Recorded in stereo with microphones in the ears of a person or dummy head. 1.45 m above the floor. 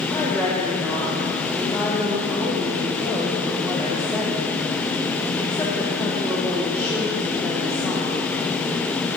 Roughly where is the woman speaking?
Centre.